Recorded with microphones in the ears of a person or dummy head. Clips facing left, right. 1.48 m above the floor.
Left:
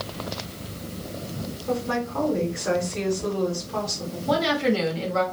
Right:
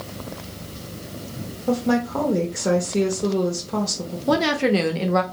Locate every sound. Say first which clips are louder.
1.7 s a woman speaking: right 6 dB; 60° right (ahead or behind), 0.7 m
4.3 s a woman speaking: right 3 dB; 55° right (ahead or behind), 0.6 m